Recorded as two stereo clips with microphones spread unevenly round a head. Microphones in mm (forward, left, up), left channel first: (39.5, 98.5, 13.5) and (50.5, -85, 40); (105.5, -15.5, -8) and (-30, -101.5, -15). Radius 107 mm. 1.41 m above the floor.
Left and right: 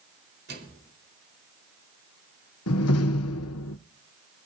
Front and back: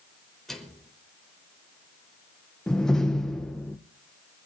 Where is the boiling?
No boiling in this recording.